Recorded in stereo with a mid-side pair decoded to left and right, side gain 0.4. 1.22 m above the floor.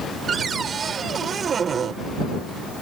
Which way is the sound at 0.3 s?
55° right.